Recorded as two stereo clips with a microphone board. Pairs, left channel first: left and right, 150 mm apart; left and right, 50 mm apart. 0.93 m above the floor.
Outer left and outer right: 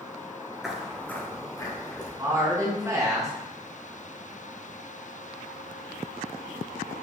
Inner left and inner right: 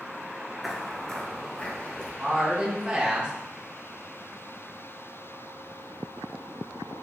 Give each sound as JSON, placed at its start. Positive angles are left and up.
{"t": 0.6, "sound": "footsteps", "side_deg": -5, "distance_m": 0.9}
{"t": 2.2, "sound": "a woman speaking", "side_deg": -20, "distance_m": 1.2}